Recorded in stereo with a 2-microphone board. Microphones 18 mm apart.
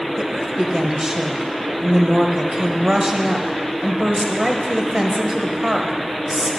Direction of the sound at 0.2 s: 30° right (ahead or behind).